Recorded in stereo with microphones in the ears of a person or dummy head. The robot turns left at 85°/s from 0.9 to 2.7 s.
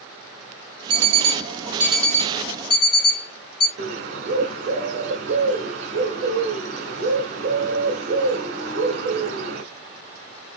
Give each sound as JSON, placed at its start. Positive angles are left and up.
{"t": 0.9, "sound": "an alarm clock", "side_deg": -60, "distance_m": 1.1}
{"t": 3.8, "sound": "a bird", "side_deg": -45, "distance_m": 1.1}